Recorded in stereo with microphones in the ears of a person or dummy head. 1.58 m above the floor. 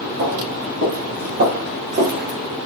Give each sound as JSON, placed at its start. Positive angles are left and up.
{"t": 0.2, "sound": "footsteps", "side_deg": -55, "distance_m": 4.0}